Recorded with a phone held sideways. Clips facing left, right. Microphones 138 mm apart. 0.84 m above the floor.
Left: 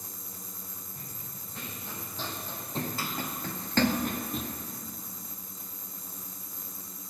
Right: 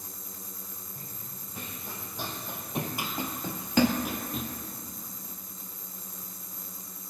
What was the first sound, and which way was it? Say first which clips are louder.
Running footsteps: even; 10° right (ahead or behind).